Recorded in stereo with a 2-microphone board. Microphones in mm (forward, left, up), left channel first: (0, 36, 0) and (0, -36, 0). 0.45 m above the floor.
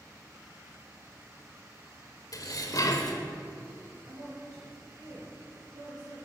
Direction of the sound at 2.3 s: 55° left (ahead or behind).